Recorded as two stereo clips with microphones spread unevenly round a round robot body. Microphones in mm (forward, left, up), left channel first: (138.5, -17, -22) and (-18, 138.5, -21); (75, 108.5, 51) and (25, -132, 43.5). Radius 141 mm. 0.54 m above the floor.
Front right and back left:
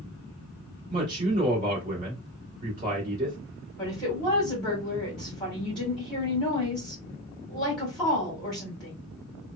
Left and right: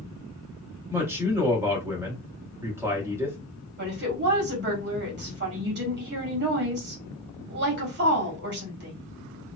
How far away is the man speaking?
About 1.0 m.